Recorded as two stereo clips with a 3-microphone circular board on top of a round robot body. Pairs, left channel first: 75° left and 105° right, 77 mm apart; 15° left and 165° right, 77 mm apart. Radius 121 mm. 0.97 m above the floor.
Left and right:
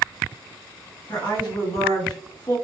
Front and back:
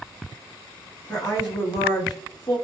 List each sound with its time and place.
1.1 s a woman speaking: 45° left, 1.5 m